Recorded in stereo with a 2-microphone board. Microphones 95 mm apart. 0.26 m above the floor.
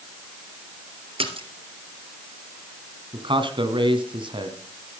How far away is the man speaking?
About 2 m.